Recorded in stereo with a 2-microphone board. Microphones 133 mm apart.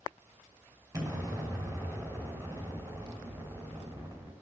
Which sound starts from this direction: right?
An explosion, at 0.9 s.